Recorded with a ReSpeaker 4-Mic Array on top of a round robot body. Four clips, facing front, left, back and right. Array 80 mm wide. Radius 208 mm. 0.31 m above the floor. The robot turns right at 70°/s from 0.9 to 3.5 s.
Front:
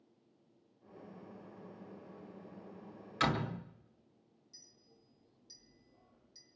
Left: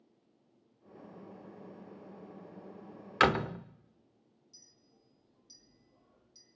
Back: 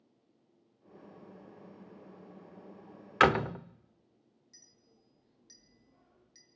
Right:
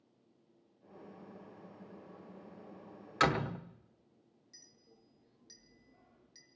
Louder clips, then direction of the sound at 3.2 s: Left 3 dB, back 9 dB; 160° left.